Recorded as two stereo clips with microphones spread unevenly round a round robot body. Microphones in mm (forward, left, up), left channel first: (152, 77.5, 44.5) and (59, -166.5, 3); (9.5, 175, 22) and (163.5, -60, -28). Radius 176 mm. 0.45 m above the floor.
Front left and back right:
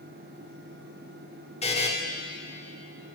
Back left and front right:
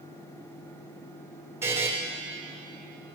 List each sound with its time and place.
1.6 s a buzzer: 5° left, 1.5 m